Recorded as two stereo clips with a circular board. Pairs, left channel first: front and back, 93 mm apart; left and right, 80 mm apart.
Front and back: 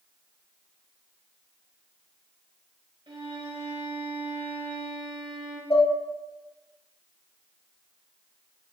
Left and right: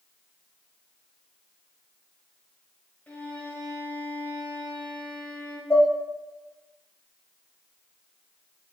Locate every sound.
3.1 s a violin: 160° left, 1.0 m
5.7 s dishes clattering: 30° left, 1.1 m